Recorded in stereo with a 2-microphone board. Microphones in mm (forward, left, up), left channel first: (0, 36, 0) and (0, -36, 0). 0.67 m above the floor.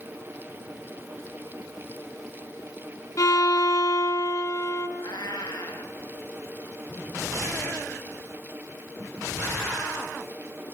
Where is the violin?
50° left (ahead or behind), 2.5 m.